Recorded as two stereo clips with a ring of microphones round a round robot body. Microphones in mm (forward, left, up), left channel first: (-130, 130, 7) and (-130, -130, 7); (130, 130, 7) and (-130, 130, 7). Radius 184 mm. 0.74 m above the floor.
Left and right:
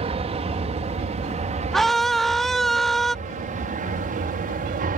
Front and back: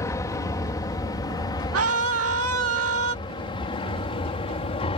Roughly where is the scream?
Behind.